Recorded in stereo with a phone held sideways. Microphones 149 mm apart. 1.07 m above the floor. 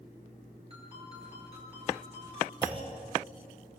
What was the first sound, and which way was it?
A ringtone, 40° right (ahead or behind).